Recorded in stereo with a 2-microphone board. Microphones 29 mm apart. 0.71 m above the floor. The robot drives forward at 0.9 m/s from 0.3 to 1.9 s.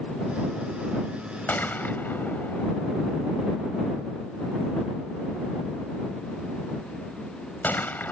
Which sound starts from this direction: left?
A gunshot, at 1.5 s.